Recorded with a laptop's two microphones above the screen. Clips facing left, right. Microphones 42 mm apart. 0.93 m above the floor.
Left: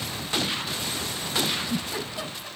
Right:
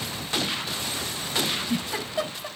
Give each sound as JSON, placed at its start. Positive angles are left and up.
{"t": 1.4, "sound": "a giggle", "side_deg": -50, "distance_m": 7.5}